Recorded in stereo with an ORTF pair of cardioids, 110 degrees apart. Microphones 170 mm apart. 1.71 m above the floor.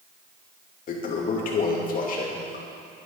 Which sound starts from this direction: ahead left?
A toilet flushing, at 0.9 s.